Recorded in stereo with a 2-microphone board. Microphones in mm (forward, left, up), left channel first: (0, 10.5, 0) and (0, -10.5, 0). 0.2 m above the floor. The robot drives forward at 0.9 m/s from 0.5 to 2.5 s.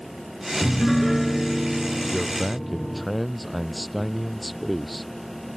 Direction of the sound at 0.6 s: 5° right (ahead or behind).